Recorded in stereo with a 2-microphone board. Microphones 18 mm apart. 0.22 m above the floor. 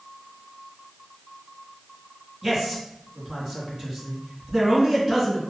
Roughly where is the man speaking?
Right.